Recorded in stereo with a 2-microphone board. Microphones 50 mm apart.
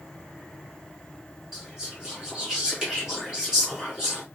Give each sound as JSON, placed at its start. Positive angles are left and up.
{"t": 1.5, "sound": "whispering", "side_deg": -15, "distance_m": 1.7}